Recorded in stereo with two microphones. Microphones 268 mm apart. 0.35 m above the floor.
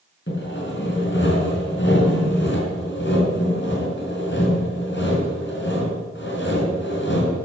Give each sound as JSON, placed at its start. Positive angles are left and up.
{"t": 0.3, "sound": "sawing", "side_deg": 45, "distance_m": 4.5}